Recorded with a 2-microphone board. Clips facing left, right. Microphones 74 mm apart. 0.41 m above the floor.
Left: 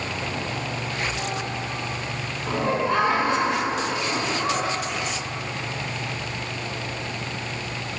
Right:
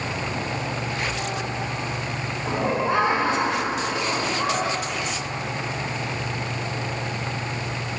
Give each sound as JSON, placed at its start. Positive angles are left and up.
{"t": 2.5, "sound": "laughter", "side_deg": -10, "distance_m": 1.4}